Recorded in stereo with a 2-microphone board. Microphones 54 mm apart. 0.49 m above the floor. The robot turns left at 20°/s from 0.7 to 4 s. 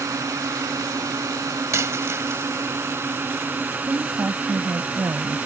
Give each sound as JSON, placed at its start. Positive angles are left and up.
{"t": 0.0, "sound": "a drone", "azimuth_deg": -85}
{"t": 1.7, "sound": "a dropped coin", "side_deg": -65}
{"t": 3.9, "sound": "a woman speaking", "side_deg": -65}